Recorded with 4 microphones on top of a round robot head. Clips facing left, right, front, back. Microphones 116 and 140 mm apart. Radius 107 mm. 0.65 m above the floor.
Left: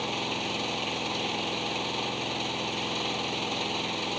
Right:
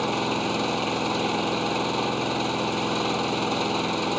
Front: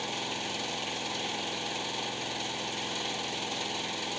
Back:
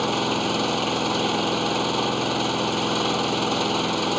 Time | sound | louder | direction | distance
0.0 | an engine running | right 7 dB, back 13 dB | 145° right | ?